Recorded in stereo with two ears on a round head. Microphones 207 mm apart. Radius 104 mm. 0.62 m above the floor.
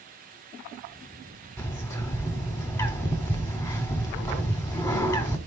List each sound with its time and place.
1.6 s a bird: 10° left (ahead or behind), 1.1 m